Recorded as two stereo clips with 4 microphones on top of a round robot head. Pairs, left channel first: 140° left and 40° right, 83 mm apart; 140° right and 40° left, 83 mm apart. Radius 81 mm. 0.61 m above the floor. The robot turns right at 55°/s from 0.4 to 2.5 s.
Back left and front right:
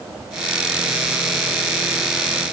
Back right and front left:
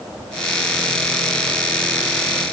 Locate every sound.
Only background noise.